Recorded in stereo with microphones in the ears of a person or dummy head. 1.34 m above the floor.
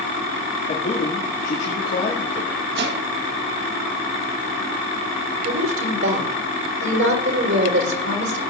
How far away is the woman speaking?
About 3.5 m.